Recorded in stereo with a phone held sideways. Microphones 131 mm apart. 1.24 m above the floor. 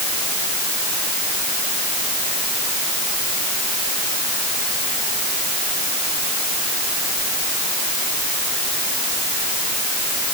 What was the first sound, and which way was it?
Only background noise.